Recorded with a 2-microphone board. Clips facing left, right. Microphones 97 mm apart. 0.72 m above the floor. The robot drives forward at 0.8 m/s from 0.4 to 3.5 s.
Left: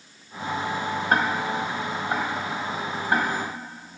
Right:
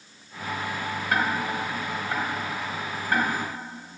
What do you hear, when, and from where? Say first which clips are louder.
1.1 s ticking: left 2 dB; 40° left (ahead or behind), 2.0 m; by 3.3 s 20° left (ahead or behind), 3.5 m